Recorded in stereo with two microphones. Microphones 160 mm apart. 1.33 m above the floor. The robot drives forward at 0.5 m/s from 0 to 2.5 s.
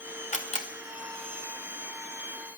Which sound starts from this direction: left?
A camera shutter, at 0.3 s.